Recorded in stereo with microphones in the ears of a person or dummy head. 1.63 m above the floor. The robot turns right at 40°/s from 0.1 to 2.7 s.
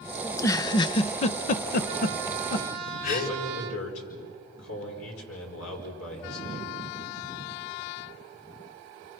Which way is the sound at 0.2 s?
10° left (ahead or behind).